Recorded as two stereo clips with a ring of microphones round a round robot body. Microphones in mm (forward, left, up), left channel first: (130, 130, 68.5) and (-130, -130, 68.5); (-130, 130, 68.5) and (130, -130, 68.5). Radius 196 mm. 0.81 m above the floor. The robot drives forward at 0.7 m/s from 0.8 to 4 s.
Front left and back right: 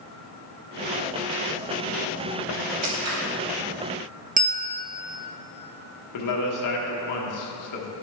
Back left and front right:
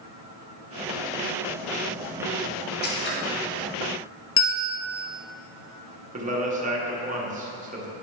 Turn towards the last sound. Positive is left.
turn(degrees=20)